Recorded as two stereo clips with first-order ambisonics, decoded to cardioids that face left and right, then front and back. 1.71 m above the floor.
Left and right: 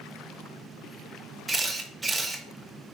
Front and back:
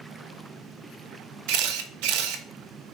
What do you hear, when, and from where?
1.5 s a camera shutter: 175° right, 0.6 m